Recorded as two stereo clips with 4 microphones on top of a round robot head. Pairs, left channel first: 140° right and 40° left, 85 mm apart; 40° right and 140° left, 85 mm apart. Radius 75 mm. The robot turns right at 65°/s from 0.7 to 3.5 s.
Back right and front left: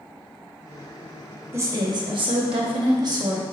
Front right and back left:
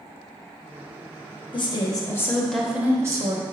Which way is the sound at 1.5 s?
20° right.